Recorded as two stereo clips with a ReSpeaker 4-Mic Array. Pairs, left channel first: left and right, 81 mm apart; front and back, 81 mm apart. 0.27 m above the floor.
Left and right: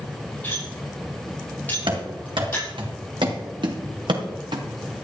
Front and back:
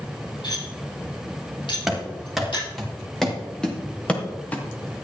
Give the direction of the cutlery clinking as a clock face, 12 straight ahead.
11 o'clock.